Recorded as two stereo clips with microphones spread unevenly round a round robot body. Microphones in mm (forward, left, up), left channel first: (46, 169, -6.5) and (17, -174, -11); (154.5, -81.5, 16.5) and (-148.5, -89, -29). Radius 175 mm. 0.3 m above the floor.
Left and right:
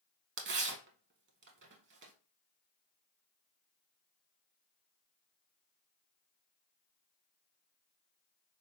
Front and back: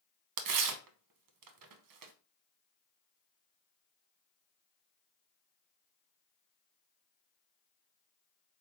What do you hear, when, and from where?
0.4 s tearing paper: 155° right, 0.6 m